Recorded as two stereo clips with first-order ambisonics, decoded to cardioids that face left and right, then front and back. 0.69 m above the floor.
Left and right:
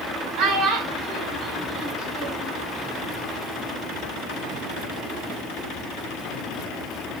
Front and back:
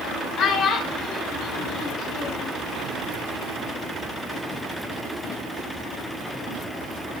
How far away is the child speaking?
About 1.5 m.